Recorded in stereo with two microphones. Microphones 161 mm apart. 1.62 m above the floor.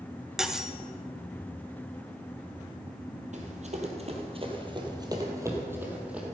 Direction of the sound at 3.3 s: 55° right (ahead or behind).